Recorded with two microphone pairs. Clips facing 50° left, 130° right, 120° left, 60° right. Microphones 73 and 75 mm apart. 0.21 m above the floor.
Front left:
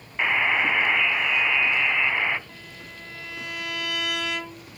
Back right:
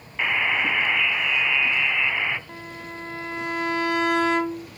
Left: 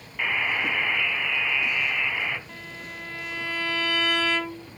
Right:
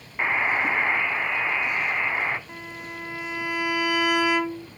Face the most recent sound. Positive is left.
turn(degrees=-120)